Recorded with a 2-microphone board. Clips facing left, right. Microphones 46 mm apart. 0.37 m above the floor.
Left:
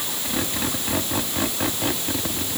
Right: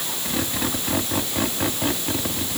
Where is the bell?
I don't hear a bell.